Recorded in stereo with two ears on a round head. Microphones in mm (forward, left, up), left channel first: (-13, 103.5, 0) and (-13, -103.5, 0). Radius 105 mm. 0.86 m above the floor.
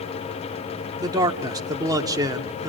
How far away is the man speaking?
About 2 m.